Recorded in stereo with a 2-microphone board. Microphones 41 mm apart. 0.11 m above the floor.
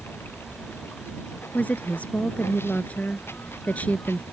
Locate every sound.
0.0 s running water: 70° left (ahead or behind)
1.5 s a woman speaking: 40° left (ahead or behind)